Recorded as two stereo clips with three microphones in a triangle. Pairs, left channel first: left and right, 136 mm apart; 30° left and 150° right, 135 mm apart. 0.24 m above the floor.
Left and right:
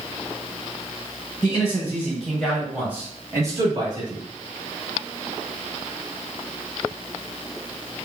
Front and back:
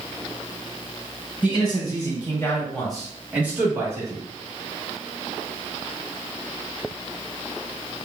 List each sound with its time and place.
1.4 s a man speaking: 45° left, 1.4 m; by 4.2 s 100° right, 1.5 m